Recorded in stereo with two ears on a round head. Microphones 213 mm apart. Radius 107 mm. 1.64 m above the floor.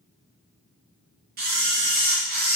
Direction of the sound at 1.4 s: 40° right (ahead or behind).